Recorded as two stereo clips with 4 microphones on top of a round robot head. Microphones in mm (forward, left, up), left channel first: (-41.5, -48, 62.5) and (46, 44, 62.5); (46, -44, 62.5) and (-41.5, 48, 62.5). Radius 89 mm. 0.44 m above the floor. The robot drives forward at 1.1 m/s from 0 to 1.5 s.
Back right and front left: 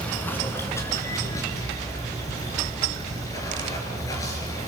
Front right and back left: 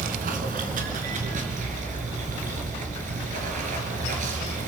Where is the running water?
145° left, 2.5 m; by 4.7 s 160° left, 4 m.